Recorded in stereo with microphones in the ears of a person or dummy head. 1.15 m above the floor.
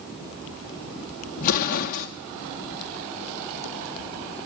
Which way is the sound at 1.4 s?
45° left (ahead or behind).